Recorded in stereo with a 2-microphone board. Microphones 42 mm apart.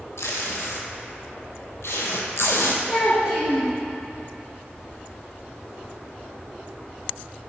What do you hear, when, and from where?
0.2 s tape being pulled: 80° left, 0.9 m
2.9 s a child speaking: 10° right (ahead or behind), 1.3 m